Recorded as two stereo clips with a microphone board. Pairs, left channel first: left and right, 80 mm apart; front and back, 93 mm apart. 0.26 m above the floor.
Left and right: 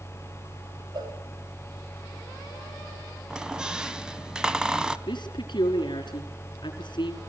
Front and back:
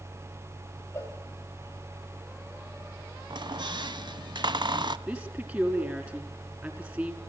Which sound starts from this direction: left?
A woman speaking, at 5.1 s.